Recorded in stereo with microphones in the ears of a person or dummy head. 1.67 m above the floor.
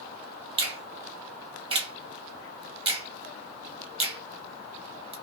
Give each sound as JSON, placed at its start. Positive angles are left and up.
{"t": 0.6, "sound": "a finger snap", "side_deg": -30, "distance_m": 0.7}